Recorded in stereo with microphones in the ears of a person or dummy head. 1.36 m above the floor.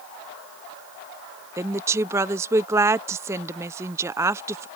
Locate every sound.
1.6 s a woman speaking: 15° right (ahead or behind)